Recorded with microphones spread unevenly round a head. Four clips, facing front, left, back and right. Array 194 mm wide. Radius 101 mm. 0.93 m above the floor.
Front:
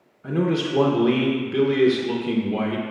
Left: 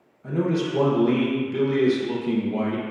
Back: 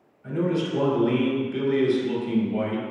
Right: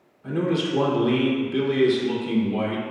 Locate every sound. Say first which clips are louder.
0.2 s a man speaking: even, front 2 dB; 10° left, 0.8 m